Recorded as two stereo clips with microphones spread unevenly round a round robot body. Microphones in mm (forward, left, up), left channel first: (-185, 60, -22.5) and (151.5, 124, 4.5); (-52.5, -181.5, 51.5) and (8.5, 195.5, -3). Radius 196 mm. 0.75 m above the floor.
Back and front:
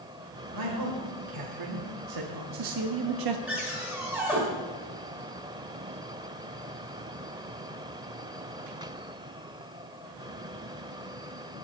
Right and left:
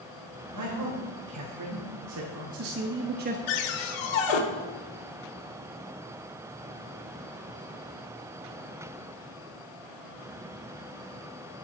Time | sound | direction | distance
0.5 | a man speaking | 35° left | 2.5 m
3.5 | a cupboard door | 75° right | 1.5 m